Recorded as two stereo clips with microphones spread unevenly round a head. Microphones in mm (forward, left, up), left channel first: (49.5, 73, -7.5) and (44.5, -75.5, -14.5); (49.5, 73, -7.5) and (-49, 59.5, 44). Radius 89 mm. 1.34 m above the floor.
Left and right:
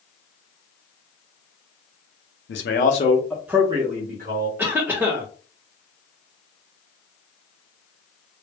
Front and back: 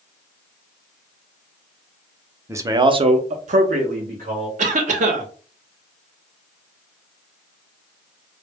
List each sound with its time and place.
2.5 s a man speaking: 120° left, 0.7 m; by 4.5 s 135° right, 1.1 m
4.6 s a cough: 170° right, 0.7 m